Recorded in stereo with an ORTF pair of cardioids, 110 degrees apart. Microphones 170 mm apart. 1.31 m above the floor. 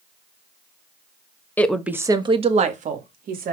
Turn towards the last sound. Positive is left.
turn(degrees=-60)